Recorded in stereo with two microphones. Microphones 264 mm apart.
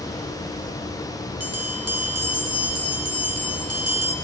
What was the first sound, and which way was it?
A bell, 65° right (ahead or behind).